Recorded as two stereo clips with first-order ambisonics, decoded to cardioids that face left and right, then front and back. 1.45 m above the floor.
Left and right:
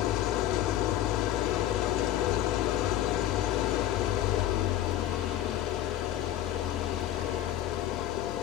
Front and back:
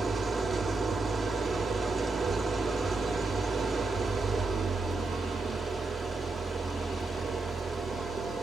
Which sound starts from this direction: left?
An engine running, at 0.0 s.